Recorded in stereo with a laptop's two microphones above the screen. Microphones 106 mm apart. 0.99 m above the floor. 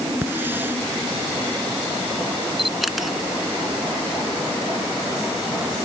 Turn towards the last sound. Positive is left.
turn(degrees=0)  # may be behind; listen again after turning